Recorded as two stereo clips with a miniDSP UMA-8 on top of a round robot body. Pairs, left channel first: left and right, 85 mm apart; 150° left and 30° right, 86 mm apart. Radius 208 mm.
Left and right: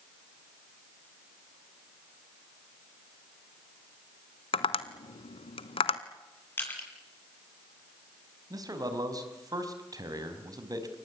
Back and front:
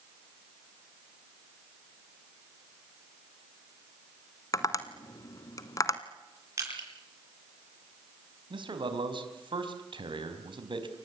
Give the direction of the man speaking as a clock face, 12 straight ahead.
2 o'clock.